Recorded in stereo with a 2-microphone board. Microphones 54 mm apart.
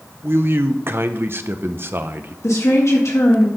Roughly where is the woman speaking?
Left.